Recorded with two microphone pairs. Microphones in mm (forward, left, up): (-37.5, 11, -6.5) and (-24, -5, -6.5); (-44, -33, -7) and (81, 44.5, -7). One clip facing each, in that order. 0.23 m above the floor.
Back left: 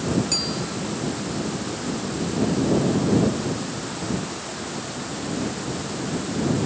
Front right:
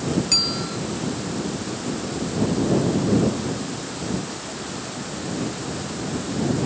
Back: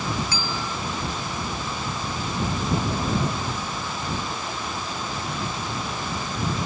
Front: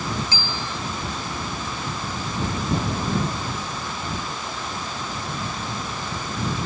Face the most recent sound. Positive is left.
turn(degrees=-5)